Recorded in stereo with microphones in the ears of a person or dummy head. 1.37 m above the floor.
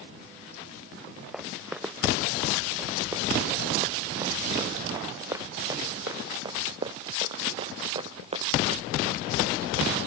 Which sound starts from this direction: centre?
Running footsteps, at 1.3 s.